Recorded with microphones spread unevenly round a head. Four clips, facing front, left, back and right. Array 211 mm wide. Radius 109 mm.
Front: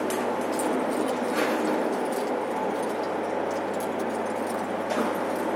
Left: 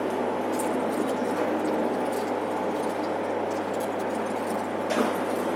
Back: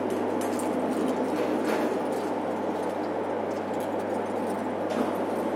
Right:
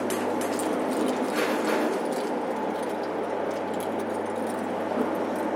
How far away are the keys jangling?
About 2 m.